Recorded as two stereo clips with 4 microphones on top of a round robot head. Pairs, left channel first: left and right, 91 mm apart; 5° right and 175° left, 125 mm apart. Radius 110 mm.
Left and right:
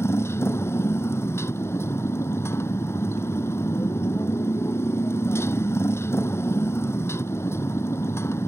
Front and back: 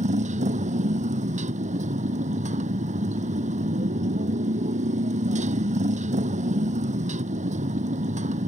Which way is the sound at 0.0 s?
150° left.